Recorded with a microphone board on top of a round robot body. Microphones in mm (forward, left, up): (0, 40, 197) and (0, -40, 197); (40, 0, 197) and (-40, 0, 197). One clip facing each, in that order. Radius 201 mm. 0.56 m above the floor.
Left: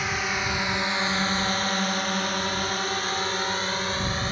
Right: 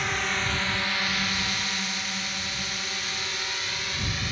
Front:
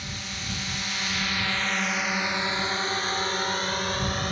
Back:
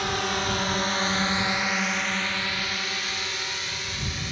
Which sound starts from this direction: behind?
A drone, at 0.0 s.